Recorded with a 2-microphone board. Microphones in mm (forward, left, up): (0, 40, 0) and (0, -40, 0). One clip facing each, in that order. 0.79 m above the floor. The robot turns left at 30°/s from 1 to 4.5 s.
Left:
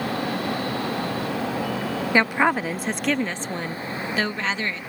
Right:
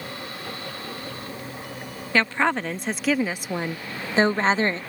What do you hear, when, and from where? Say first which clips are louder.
0.0 s a vehicle: left 10 dB; 110° left; by 4.9 s 5° left
2.1 s a woman speaking: left 1 dB; 20° left; by 4.8 s 50° right